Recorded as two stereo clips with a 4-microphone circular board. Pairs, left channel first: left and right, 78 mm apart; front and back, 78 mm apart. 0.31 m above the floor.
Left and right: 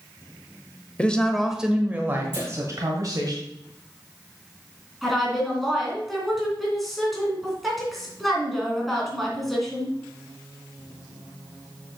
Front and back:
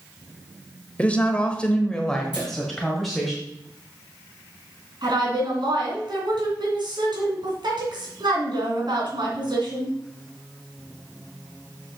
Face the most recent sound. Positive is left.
turn(degrees=180)